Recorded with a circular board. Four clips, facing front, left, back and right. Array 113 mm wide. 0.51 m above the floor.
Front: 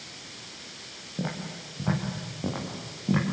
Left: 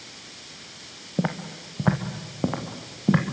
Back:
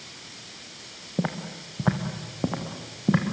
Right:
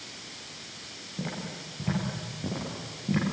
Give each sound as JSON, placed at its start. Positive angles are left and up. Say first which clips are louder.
{"t": 1.2, "sound": "footsteps", "louder": "left 8 dB, back 4 dB", "azimuth_deg": 125, "distance_m": 3.0}